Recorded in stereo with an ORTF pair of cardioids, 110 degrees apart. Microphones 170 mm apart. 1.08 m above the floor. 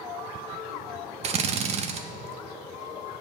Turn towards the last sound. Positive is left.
turn(degrees=-40)